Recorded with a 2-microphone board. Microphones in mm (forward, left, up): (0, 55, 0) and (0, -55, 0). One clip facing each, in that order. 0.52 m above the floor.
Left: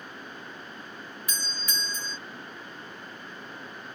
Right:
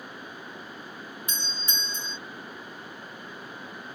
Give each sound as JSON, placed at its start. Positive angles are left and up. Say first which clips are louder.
{"t": 1.3, "sound": "a doorbell", "louder": "left 2 dB", "side_deg": -30}